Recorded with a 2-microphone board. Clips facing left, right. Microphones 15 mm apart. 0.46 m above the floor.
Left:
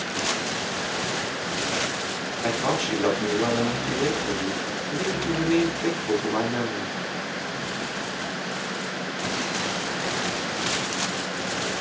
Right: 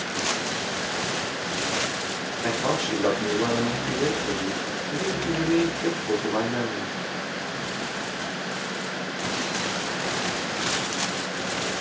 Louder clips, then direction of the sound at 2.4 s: Left 1 dB; 25° left (ahead or behind).